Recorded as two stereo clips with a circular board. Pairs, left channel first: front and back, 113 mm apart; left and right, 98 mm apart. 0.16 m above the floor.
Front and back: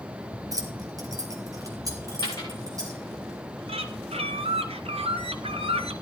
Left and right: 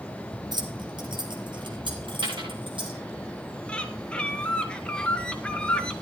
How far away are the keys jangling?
About 1.6 m.